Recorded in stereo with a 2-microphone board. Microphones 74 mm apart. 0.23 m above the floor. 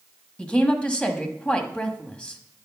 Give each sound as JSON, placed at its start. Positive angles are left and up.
{"t": 0.4, "sound": "a woman speaking", "side_deg": 15, "distance_m": 1.3}